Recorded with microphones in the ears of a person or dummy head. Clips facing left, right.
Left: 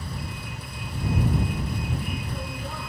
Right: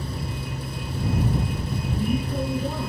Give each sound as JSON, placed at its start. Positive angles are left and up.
{"t": 0.0, "sound": "a vehicle", "side_deg": -30}